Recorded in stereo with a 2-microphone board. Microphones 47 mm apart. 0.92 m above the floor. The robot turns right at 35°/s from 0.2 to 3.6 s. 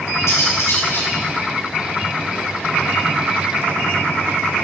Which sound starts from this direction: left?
Cutlery clinking, at 0.3 s.